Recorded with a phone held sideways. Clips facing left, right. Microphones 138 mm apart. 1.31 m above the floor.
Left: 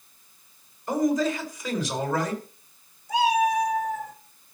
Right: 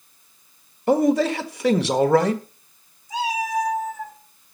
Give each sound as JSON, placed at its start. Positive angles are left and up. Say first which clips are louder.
{"t": 0.9, "sound": "a man speaking", "louder": "right 5 dB", "side_deg": -75, "distance_m": 1.5}
{"t": 3.1, "sound": "a cat meowing", "louder": "left 3 dB", "side_deg": 65, "distance_m": 4.0}